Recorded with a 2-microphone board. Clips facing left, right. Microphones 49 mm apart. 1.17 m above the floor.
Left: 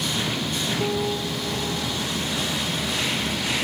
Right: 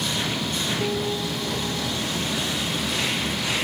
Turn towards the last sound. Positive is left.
turn(degrees=10)  # may be behind; listen again after turning